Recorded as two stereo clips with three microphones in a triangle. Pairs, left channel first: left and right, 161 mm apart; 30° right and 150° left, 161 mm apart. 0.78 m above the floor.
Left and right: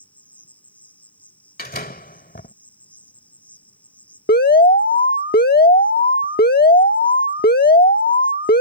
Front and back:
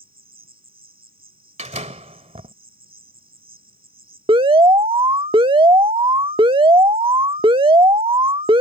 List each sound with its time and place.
0.0 s an insect: 170° left
1.6 s a door slam: 105° left
4.3 s an alarm: 95° left